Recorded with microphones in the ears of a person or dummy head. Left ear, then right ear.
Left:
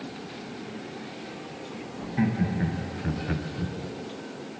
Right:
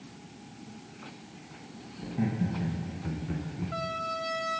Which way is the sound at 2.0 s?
60° left (ahead or behind).